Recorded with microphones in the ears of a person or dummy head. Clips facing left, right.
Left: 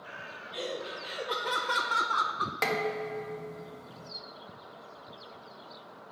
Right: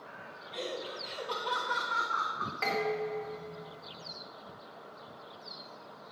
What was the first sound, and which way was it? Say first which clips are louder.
Laughter: left 2 dB; 5° right (ahead or behind).